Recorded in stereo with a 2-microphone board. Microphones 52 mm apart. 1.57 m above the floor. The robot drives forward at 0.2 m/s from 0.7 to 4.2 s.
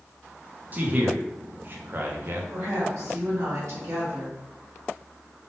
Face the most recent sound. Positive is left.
turn(degrees=-80)